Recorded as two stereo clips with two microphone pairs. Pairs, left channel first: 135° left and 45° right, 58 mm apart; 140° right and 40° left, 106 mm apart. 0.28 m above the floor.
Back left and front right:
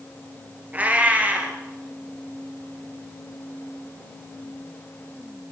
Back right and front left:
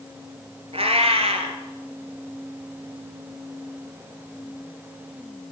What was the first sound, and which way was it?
A cat meowing, 20° left.